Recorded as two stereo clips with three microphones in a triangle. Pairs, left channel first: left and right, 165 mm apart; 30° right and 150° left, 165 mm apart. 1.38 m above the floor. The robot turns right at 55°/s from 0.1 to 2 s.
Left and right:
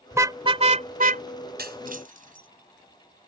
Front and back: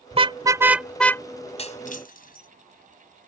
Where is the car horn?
165° right; by 1.2 s 100° right.